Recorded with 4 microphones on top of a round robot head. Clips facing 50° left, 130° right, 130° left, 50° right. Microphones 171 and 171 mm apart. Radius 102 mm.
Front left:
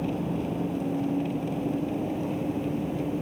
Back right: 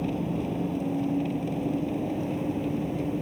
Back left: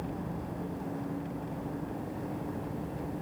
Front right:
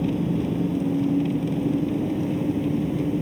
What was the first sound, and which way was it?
An engine running, 45° right.